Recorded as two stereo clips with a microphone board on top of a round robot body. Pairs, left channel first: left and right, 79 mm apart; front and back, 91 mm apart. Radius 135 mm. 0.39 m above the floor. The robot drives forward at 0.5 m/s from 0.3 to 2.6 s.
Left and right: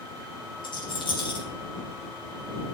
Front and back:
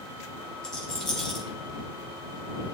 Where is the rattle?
80° left, 4 m; by 1.4 s 85° left, 4 m.